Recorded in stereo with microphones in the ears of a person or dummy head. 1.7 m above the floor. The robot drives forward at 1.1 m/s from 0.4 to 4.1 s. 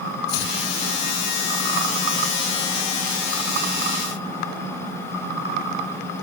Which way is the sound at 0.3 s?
70° left (ahead or behind).